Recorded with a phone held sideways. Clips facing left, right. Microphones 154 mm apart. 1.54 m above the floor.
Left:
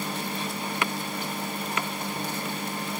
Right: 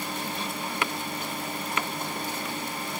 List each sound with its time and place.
Only background noise.